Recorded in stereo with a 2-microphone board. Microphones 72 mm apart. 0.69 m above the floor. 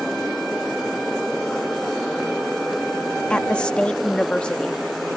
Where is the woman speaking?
15° left (ahead or behind).